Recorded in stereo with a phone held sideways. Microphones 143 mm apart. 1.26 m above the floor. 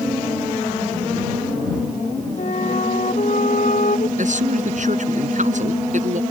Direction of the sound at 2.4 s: 65° left (ahead or behind).